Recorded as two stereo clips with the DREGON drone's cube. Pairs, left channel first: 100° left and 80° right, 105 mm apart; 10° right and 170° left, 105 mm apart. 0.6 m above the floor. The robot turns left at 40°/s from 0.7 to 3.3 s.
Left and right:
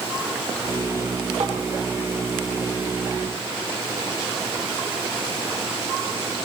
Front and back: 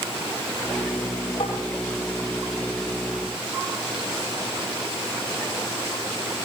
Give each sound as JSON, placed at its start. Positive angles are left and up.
{"t": 1.4, "sound": "tapping", "azimuth_deg": -55, "distance_m": 8.0}